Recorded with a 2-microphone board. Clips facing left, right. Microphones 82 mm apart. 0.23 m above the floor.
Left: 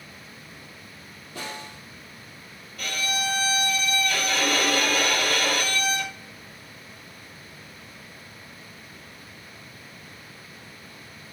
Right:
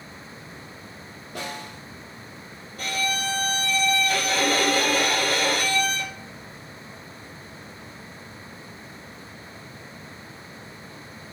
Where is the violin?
35° right (ahead or behind), 1.0 m.